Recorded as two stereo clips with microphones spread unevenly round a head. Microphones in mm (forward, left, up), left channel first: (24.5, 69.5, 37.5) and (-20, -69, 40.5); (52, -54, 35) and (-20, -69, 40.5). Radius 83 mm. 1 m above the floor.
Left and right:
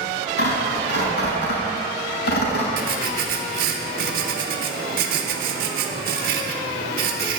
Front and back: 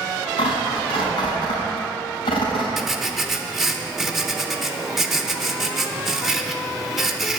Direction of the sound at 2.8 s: 85° right.